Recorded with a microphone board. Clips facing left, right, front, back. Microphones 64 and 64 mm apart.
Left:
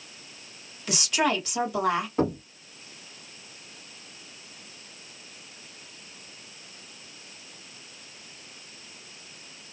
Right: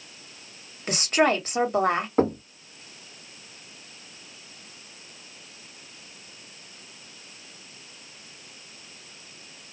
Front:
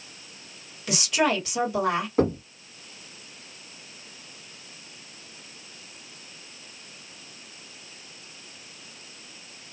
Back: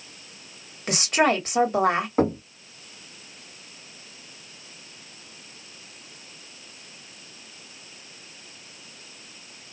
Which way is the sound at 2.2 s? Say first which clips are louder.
Right 6 dB, even; 125° right.